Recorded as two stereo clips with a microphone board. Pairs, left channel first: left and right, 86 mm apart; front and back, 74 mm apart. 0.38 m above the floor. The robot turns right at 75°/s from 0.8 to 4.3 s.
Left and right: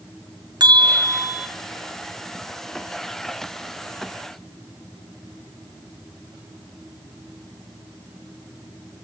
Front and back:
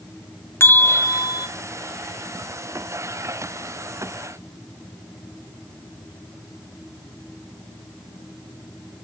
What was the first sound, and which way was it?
A bell, 55° right.